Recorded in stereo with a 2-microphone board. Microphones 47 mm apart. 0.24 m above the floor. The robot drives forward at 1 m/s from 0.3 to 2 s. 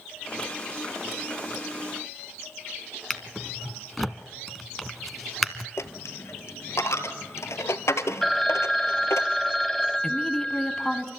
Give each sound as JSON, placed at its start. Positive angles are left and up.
{"t": 3.1, "sound": "a drawer", "side_deg": 5, "distance_m": 0.9}
{"t": 5.8, "sound": "a dropped coin", "side_deg": 85, "distance_m": 0.8}
{"t": 8.2, "sound": "a phone ringing", "side_deg": 5, "distance_m": 0.7}
{"t": 10.0, "sound": "a woman speaking", "side_deg": 15, "distance_m": 1.5}